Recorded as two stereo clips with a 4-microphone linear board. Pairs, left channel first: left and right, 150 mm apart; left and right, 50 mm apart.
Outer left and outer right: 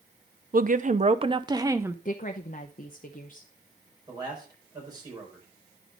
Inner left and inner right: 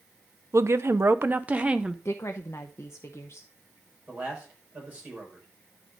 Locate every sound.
0.5 s a woman speaking: 70° right (ahead or behind), 0.7 m; by 1.9 s 15° right (ahead or behind), 0.9 m
2.0 s a woman speaking: 60° left (ahead or behind), 0.7 m
4.1 s a man speaking: 30° right (ahead or behind), 4.5 m